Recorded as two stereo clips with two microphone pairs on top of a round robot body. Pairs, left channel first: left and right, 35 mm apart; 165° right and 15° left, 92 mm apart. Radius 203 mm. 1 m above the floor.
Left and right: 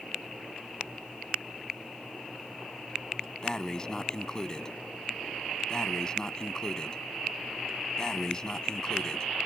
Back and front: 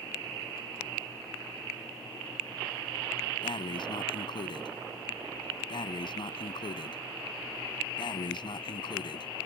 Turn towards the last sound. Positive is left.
turn(degrees=165)